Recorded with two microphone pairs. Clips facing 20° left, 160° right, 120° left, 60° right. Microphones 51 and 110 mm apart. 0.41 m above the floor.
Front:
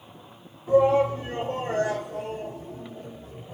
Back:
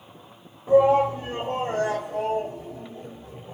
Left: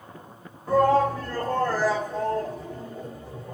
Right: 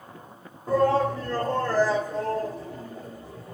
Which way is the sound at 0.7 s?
110° right.